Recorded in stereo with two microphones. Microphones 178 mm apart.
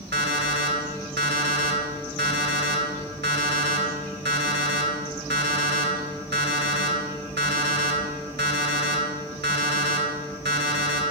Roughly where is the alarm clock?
Right.